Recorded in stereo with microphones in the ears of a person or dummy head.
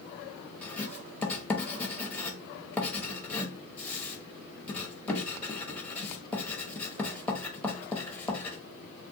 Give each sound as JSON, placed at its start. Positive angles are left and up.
{"t": 0.6, "sound": "writing", "side_deg": 10, "distance_m": 0.7}